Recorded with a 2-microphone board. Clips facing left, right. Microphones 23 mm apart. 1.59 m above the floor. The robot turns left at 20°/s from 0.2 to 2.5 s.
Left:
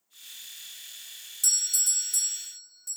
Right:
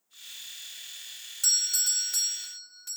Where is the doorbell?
25° right (ahead or behind), 0.9 m; by 3.0 s 40° right (ahead or behind), 0.9 m.